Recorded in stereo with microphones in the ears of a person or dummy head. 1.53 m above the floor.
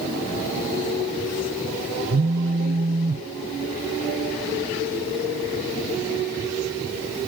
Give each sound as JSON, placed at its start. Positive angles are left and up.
{"t": 2.1, "sound": "a phone buzzing", "side_deg": -45, "distance_m": 0.6}